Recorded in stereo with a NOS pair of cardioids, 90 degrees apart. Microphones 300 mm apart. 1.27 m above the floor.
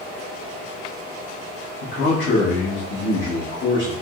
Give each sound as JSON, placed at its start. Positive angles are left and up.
{"t": 1.8, "sound": "a man speaking", "azimuth_deg": 40, "distance_m": 1.2}